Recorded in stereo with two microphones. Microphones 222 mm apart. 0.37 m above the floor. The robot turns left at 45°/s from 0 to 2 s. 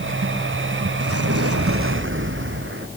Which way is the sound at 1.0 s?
80° right.